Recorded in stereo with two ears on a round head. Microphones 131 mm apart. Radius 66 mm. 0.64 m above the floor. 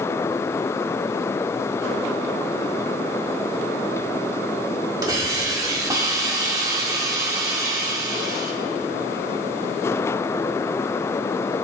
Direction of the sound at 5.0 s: 25° right (ahead or behind).